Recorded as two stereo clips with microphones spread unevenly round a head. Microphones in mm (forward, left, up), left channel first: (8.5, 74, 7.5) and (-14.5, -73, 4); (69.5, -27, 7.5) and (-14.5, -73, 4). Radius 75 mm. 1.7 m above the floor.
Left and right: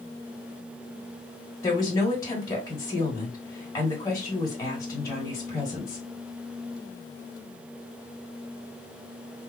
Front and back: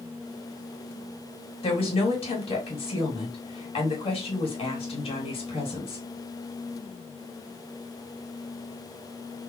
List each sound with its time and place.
1.6 s a woman speaking: 15° left, 2.5 m